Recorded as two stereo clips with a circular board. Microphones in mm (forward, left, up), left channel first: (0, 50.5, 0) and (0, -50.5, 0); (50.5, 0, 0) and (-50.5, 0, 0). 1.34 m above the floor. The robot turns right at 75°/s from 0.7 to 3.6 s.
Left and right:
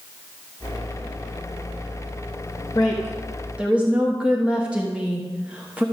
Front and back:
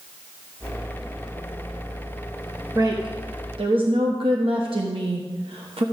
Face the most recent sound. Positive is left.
turn(degrees=-165)